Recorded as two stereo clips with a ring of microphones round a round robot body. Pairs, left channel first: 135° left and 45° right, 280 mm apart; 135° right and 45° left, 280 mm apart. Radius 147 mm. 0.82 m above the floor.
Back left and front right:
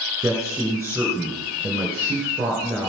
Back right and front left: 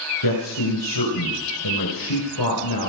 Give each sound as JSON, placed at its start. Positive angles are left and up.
{"t": 0.2, "sound": "a man speaking", "azimuth_deg": -125, "distance_m": 4.0}